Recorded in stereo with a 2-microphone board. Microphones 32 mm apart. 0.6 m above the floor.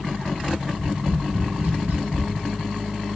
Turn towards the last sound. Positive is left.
turn(degrees=-55)  # may be behind; listen again after turning